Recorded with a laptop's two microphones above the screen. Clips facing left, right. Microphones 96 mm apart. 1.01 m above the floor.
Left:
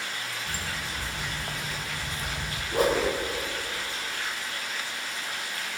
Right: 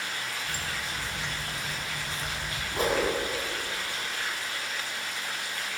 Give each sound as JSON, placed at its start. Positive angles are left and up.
{"t": 0.5, "sound": "footsteps", "side_deg": 45, "distance_m": 2.0}
{"t": 2.7, "sound": "a whoosh", "side_deg": 85, "distance_m": 4.0}